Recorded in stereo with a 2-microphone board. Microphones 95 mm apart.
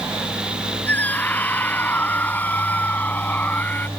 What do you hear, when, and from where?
0.9 s a scream: 20° left (ahead or behind)